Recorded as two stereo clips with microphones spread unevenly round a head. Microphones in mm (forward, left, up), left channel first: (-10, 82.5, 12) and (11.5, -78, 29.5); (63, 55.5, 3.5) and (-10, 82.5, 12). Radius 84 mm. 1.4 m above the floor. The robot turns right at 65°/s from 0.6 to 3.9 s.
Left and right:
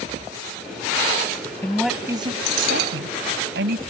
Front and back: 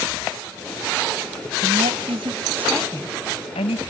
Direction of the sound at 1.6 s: 175° left.